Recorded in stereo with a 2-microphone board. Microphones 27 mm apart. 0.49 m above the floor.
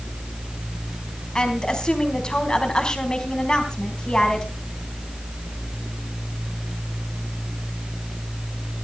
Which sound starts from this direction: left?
A woman speaking, at 1.4 s.